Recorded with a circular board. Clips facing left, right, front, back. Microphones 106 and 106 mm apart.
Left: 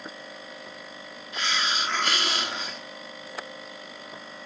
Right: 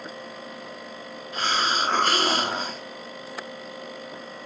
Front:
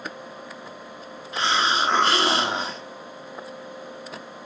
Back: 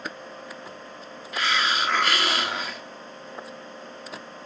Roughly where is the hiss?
Ahead right.